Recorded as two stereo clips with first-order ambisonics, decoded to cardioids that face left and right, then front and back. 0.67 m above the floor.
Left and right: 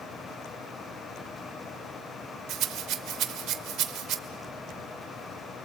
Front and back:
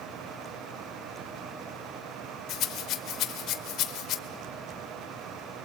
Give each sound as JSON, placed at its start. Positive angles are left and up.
{"t": 2.5, "sound": "a rattle", "azimuth_deg": -45, "distance_m": 1.4}